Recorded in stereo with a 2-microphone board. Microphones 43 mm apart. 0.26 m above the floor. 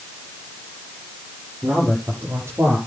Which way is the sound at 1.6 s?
80° right.